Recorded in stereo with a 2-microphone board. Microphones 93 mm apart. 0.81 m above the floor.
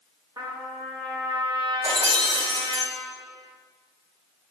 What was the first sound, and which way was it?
A trumpet, 45° right (ahead or behind).